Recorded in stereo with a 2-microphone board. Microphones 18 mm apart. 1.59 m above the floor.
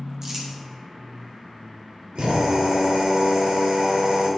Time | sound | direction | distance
0.2 | crumpling | 25° right (ahead or behind) | 3 m
2.1 | a drill | 65° right (ahead or behind) | 6 m